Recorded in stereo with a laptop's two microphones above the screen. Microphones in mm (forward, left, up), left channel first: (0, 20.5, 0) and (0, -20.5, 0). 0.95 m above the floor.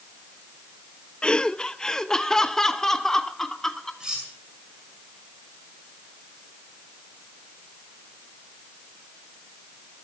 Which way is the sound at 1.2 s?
25° left (ahead or behind).